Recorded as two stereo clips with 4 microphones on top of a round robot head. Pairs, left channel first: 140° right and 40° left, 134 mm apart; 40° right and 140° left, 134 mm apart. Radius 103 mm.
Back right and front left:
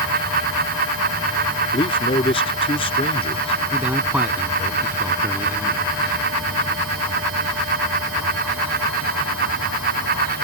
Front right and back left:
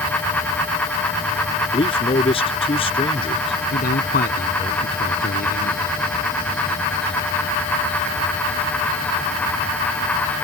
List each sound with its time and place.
1.7 s a man speaking: 90° right
3.7 s a man speaking: 40° right